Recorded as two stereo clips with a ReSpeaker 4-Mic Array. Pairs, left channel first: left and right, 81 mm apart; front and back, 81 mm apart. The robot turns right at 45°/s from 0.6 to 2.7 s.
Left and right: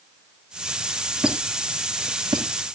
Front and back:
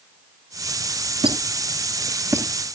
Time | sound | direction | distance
1.2 | a squeak | 175° right | 2.5 m